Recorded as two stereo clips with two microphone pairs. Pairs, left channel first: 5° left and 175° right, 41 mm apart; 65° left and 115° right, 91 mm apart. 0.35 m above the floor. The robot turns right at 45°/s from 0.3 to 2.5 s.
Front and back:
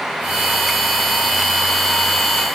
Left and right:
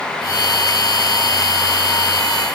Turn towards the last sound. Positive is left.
No sound to turn to.